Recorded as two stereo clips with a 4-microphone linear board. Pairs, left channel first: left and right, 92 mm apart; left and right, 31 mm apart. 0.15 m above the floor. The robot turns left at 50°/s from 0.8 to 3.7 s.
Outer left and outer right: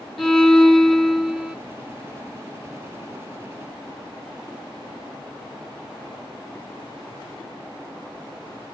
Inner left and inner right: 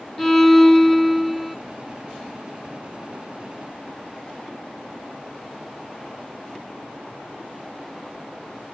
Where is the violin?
5° left (ahead or behind), 1.5 m; by 1.6 s 15° right (ahead or behind), 1.5 m.